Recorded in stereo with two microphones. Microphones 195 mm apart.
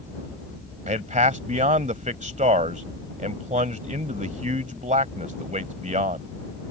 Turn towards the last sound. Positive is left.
turn(degrees=-40)  # may be behind; listen again after turning